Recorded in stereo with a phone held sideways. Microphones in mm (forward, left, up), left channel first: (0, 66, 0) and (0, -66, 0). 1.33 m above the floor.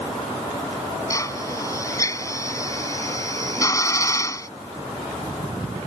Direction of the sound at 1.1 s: 25° left (ahead or behind).